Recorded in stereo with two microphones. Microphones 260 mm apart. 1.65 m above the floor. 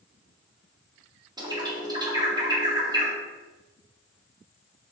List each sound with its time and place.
1.4 s a bird: 15° right (ahead or behind), 0.7 m